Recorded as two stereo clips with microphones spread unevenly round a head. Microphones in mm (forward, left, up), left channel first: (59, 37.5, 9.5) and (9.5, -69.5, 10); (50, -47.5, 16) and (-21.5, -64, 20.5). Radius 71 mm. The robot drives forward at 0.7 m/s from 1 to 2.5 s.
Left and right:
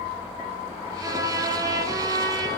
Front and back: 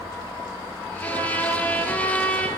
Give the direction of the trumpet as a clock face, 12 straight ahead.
2 o'clock.